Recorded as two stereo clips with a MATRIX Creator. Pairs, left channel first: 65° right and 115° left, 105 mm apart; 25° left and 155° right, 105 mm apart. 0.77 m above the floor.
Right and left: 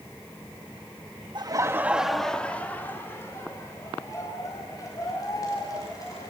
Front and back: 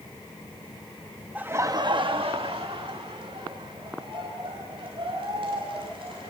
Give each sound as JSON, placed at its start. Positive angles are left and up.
{"t": 1.4, "sound": "laughter", "azimuth_deg": 130, "distance_m": 1.1}